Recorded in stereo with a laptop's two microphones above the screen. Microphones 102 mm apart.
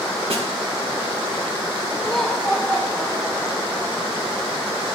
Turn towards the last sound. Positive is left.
turn(degrees=5)  # may be behind; listen again after turning